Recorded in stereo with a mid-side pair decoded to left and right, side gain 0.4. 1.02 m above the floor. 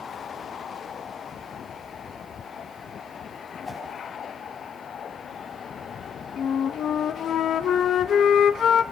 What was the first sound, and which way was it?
A whoosh, 30° left.